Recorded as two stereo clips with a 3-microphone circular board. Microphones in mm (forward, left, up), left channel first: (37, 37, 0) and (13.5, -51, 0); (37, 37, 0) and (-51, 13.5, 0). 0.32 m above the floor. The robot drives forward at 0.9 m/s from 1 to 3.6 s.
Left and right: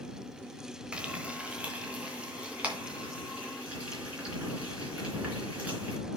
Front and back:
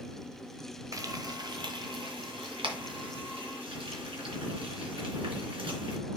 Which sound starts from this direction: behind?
Frying, at 0.9 s.